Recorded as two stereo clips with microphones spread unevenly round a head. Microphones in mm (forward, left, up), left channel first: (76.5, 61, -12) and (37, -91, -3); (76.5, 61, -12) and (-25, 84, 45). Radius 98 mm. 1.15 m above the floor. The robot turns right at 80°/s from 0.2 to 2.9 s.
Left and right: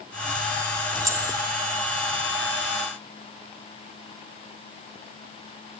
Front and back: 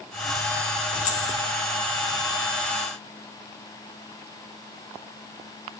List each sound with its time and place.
0.9 s keys jangling: 45° right, 1.7 m; by 1.3 s 15° right, 1.7 m